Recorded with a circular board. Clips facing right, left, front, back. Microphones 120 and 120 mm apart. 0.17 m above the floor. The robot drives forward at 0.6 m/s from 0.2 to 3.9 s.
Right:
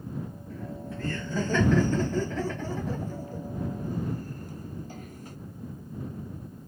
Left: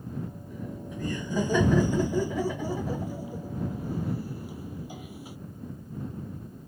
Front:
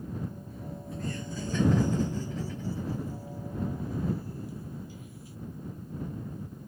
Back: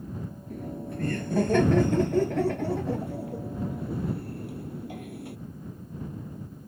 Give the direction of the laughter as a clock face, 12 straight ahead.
7 o'clock.